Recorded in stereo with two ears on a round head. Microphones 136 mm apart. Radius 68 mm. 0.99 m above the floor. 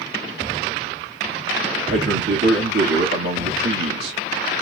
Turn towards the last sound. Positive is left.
turn(degrees=-75)  # may be behind; listen again after turning